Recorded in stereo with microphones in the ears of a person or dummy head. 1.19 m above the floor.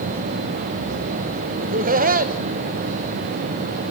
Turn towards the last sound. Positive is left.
turn(degrees=-40)  # may be behind; listen again after turning